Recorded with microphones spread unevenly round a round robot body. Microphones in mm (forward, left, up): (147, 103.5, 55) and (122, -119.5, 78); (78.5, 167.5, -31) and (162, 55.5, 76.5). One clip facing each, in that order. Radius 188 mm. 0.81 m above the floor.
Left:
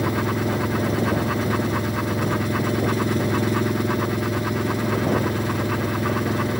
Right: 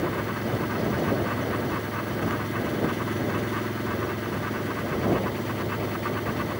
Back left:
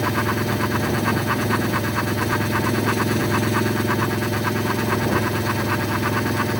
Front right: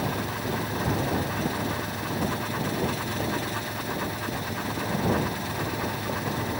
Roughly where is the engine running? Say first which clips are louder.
Left 5 dB, back left 7 dB; behind left.